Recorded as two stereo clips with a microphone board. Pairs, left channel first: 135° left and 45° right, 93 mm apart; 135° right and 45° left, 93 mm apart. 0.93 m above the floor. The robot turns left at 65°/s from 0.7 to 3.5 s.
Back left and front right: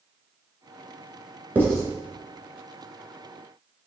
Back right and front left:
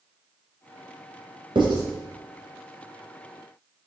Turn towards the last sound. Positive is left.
turn(degrees=-100)